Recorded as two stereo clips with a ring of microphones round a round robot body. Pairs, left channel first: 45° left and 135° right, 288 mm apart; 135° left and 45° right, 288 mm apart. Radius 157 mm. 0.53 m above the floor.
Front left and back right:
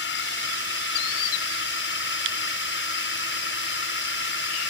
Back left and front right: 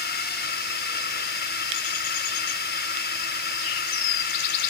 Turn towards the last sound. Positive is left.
turn(degrees=85)